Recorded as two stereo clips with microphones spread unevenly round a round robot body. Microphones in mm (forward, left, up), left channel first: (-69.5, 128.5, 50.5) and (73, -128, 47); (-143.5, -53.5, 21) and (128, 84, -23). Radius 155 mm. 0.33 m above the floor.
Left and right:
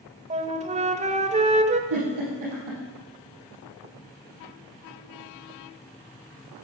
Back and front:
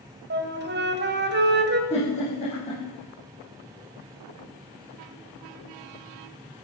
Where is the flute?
5° right, 0.9 m.